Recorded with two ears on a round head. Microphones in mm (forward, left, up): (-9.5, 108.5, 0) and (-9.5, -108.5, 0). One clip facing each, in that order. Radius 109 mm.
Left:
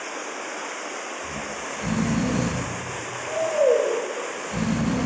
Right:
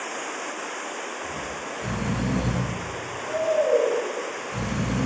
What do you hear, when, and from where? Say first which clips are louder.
1.2 s snoring: even; 70° left (ahead or behind), 0.7 m